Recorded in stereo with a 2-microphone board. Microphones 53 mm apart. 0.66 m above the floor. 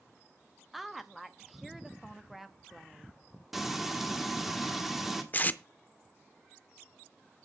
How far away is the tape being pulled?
About 0.5 m.